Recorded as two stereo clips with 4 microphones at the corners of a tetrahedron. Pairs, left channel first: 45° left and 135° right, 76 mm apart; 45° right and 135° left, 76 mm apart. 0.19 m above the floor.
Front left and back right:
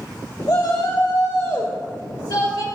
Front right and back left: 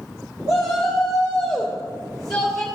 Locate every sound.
0.5 s a shout: 55° left, 2.5 m; by 2.6 s 40° left, 3.5 m